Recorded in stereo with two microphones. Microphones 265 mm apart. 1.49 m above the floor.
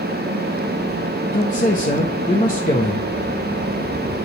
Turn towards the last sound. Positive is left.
turn(degrees=30)  # may be behind; listen again after turning